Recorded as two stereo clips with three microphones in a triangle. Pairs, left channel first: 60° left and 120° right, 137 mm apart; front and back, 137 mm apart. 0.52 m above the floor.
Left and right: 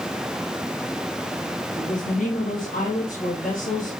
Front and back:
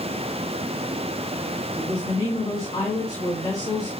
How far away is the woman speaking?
About 6 m.